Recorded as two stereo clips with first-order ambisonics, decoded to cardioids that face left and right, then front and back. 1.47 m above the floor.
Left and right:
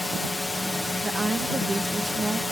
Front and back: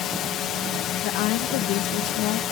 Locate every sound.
0.0 s a drone: 10° left
1.0 s a woman speaking: 15° right